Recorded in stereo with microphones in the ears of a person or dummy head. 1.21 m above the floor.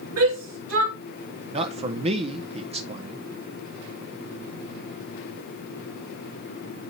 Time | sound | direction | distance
0.2 | a shout | 80° right | 2 m
1.5 | a man speaking | 35° right (ahead or behind) | 0.8 m